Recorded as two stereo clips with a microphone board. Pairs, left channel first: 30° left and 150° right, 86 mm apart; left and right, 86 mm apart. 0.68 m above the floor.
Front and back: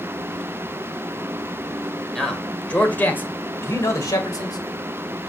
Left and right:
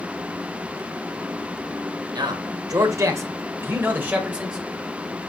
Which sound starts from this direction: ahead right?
A man speaking, at 2.1 s.